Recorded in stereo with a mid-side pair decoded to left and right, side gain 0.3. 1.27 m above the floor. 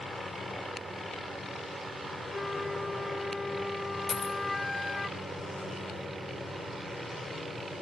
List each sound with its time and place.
2.3 s a flute: 20° left, 1.2 m
4.1 s a dropped coin: 50° left, 2.5 m